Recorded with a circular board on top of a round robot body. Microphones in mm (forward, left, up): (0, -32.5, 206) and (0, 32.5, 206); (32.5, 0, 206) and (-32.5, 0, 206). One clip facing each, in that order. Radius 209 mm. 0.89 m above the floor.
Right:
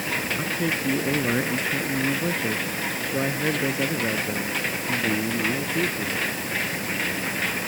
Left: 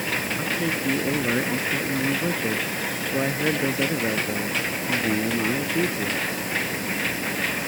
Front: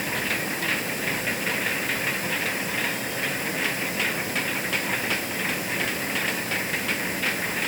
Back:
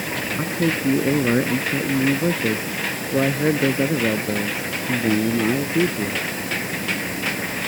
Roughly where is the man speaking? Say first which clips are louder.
Even, back 6 dB; behind.